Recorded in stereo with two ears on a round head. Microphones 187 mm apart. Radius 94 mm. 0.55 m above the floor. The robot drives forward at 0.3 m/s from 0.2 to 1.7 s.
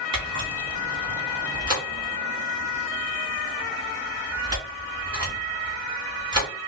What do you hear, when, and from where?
0.1 s a camera shutter: 25° right (ahead or behind), 3 m; by 6.5 s 20° right (ahead or behind), 3.5 m